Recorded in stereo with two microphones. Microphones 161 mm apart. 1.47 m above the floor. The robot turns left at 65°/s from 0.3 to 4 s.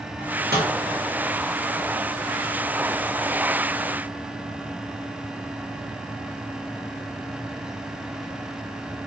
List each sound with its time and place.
0.2 s a microwave: 65° right (ahead or behind), 1.4 m; by 0.7 s 85° right, 1.4 m